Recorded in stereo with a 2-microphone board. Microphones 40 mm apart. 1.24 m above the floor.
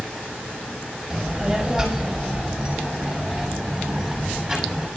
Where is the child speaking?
5° right (ahead or behind), 4 m.